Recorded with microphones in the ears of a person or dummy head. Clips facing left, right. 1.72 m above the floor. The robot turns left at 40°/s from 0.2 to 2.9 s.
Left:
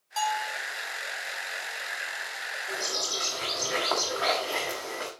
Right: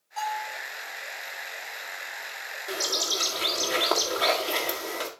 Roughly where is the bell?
Left.